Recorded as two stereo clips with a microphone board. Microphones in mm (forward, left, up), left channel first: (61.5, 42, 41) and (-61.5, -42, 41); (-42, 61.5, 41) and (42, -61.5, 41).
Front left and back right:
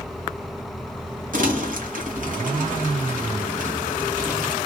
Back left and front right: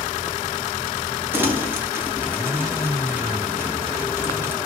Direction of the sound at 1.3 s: 130° right.